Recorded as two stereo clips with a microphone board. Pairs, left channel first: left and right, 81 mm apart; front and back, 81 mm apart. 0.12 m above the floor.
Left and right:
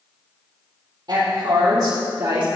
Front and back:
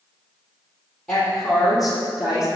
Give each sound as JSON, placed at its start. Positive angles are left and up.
{"t": 1.1, "sound": "a woman speaking", "azimuth_deg": -80, "distance_m": 3.0}